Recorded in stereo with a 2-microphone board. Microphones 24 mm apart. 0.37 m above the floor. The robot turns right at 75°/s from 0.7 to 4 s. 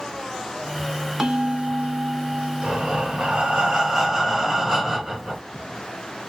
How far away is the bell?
About 0.7 m.